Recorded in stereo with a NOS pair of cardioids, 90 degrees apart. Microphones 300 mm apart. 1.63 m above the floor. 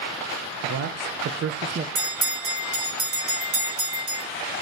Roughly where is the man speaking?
Ahead right.